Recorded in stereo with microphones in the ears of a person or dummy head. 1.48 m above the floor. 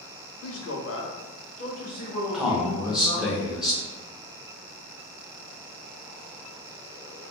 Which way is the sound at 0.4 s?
75° left (ahead or behind).